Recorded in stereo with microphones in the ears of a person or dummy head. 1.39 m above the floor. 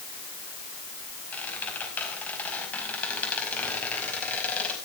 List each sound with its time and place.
1.3 s a squeak: 10° left (ahead or behind), 5 m